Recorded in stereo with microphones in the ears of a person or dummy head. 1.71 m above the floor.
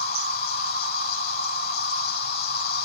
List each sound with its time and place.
0.0 s an insect: 55° left (ahead or behind), 1.4 m